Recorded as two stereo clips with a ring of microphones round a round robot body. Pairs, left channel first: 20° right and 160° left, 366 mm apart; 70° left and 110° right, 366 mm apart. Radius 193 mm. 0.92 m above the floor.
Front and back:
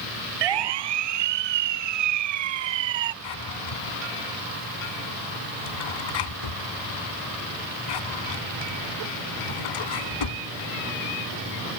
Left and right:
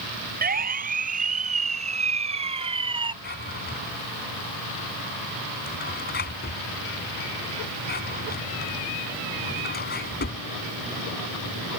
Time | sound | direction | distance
0.4 | a siren | straight behind | ?
3.2 | a drawer | straight ahead | ?